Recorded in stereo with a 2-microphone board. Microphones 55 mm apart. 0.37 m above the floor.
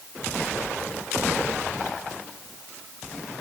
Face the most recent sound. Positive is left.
No sound to turn to.